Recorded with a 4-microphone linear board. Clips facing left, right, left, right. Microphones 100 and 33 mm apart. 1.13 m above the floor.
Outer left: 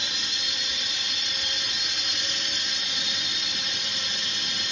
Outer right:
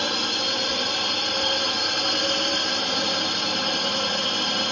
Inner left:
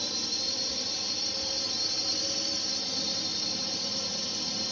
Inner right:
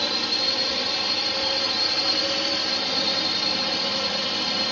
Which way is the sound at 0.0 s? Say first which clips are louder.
Outer right 11 dB, inner right 9 dB; 60° right (ahead or behind).